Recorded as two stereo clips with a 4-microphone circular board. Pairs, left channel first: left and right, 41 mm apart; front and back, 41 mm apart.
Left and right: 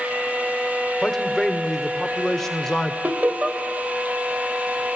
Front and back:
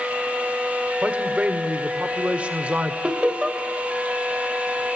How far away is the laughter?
About 2 m.